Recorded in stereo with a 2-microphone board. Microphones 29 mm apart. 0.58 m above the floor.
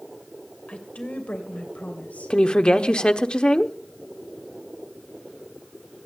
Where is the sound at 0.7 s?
50° left (ahead or behind), 3 m; by 3.2 s 70° left (ahead or behind), 3.5 m.